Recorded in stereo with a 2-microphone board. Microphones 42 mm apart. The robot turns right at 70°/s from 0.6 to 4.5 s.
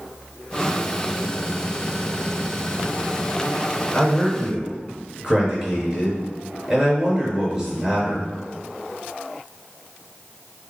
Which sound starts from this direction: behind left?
A man speaking, at 3.9 s.